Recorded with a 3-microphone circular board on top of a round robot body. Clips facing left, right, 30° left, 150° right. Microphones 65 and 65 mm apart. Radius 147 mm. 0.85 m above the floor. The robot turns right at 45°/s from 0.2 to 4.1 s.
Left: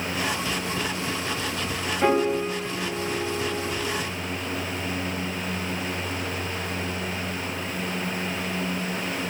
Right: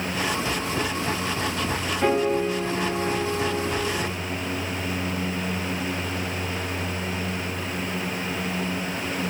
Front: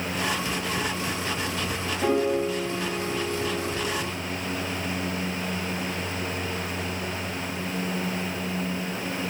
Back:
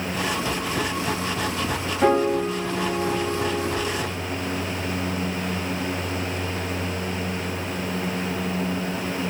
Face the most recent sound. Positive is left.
turn(degrees=-100)